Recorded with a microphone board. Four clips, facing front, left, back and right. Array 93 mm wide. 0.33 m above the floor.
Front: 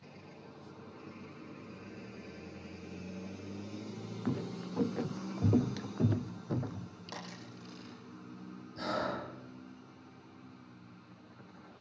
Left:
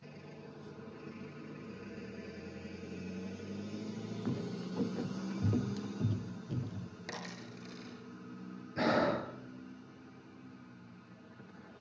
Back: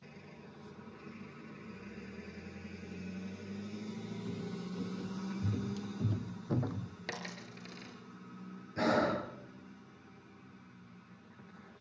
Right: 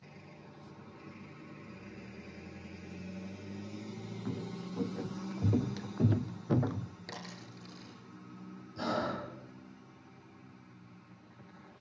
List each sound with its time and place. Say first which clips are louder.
4.2 s footsteps: left 1 dB, front 8 dB; 10° left, 2.0 m; by 6.9 s 110° right, 1.0 m
7.1 s a dropped coin: left 2 dB, back 2 dB; 165° left, 8 m
8.8 s breathing: left 4 dB, back 5 dB; 125° left, 3 m